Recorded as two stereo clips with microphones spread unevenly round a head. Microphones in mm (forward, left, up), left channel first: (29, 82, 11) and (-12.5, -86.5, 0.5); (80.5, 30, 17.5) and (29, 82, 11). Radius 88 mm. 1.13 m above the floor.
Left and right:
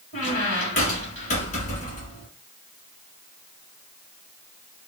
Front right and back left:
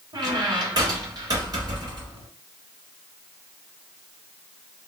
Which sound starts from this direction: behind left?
A squeak, at 0.1 s.